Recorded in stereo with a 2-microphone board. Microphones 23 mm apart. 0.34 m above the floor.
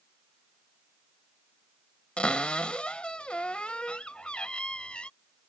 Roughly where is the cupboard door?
Left.